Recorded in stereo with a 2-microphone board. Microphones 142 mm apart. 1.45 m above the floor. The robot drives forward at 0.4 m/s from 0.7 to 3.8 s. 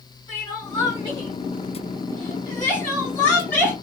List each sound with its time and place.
0.3 s crying: 30° left (ahead or behind), 2 m; by 3.7 s 20° left (ahead or behind), 3 m